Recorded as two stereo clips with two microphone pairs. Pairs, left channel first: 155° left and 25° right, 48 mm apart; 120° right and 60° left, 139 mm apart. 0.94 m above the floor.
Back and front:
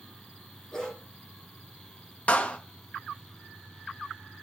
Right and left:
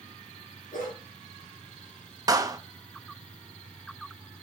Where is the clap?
110° left, 0.6 m.